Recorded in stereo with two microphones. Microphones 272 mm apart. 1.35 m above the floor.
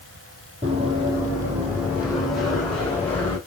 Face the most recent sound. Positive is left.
turn(degrees=10)  # may be behind; listen again after turning